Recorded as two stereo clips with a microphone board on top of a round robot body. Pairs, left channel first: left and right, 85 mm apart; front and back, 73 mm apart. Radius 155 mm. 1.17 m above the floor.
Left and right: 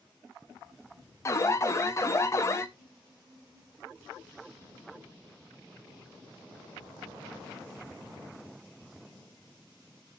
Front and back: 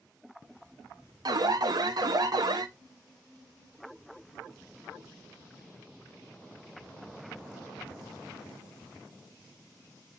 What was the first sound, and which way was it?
An alarm, 145° left.